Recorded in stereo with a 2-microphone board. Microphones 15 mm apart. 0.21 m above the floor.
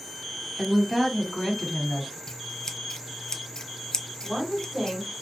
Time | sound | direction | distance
0.6 | a woman speaking | 20° right (ahead or behind) | 1.6 m
2.3 | scissors | 40° left (ahead or behind) | 0.8 m
4.2 | a woman speaking | 5° right (ahead or behind) | 1.9 m